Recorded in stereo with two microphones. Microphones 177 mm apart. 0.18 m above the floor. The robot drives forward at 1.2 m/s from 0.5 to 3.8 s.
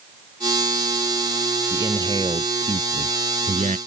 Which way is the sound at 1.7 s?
25° right (ahead or behind).